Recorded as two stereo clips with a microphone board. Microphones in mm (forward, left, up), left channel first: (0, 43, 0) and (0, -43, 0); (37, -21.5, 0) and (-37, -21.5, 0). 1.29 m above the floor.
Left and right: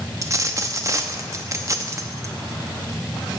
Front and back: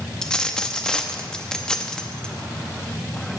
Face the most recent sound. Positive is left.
turn(degrees=-70)